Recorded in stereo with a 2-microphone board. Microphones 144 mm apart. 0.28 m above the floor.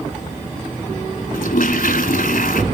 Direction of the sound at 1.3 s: 75° left (ahead or behind).